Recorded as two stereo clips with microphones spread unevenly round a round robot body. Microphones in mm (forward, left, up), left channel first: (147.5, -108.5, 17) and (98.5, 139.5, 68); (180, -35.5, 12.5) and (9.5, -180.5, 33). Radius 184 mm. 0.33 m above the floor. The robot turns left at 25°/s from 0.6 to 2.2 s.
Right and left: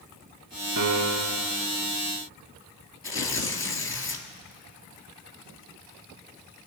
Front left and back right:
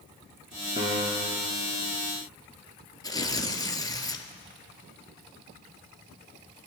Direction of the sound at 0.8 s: 145° left.